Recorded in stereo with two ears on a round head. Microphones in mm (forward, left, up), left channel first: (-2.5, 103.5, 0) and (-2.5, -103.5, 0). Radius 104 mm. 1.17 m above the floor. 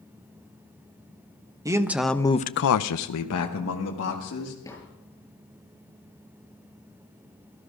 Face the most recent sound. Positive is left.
turn(degrees=15)  # may be behind; listen again after turning